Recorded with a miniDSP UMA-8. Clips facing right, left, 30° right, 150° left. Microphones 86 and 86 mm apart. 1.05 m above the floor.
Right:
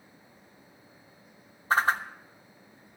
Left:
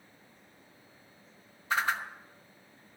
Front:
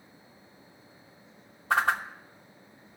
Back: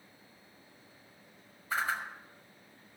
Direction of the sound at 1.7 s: 40° right.